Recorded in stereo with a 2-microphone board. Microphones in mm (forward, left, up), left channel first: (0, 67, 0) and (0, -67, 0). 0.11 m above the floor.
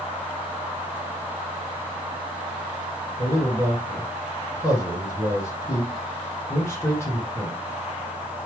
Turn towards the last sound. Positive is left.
turn(degrees=20)  # may be behind; listen again after turning